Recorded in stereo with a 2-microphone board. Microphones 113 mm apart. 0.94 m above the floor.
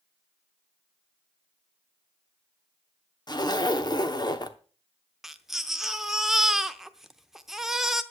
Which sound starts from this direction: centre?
A baby crying, at 5.2 s.